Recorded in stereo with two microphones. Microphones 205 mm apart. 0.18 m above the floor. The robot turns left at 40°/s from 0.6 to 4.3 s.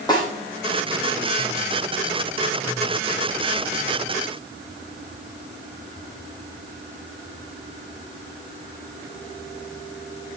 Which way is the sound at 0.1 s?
20° left (ahead or behind).